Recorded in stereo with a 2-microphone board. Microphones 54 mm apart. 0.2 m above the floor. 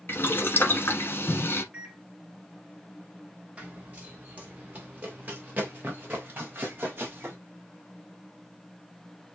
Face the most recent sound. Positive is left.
turn(degrees=-35)  # may be behind; listen again after turning